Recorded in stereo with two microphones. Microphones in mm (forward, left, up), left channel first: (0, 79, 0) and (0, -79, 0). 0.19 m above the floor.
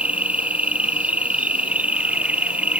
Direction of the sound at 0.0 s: 10° right (ahead or behind).